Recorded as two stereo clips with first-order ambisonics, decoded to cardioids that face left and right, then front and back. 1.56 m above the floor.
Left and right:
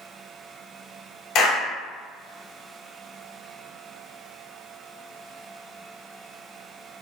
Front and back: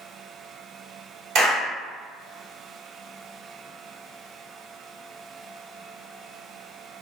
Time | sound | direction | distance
1.4 | a clap | 140° left | 1.4 m